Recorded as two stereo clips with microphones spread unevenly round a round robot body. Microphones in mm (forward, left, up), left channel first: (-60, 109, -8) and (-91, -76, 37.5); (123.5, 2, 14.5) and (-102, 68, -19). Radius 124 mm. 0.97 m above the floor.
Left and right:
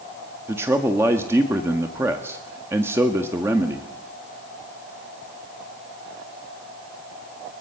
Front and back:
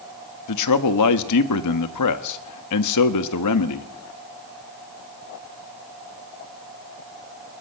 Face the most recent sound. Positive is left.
turn(degrees=-15)